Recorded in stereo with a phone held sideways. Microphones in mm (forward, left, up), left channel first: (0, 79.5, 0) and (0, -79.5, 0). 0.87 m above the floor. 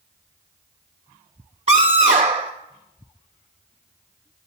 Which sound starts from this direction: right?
A scream, at 1.7 s.